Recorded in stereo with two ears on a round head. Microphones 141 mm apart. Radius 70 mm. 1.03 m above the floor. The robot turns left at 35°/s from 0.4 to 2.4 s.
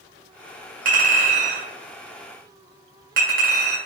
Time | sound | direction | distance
0.8 | a clink | 55° right (ahead or behind) | 1.9 m